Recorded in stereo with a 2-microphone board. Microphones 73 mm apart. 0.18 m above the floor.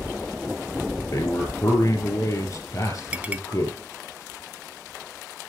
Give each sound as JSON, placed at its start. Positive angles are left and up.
{"t": 1.0, "sound": "a man speaking", "side_deg": 45, "distance_m": 4.5}
{"t": 3.1, "sound": "a clink", "side_deg": -20, "distance_m": 1.0}